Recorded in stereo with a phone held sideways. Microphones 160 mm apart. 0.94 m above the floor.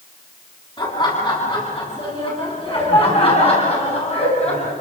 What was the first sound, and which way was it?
Laughter, 30° left (ahead or behind).